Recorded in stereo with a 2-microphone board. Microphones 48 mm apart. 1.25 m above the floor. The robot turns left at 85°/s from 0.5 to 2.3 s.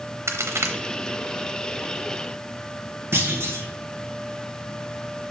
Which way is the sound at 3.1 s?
55° right (ahead or behind).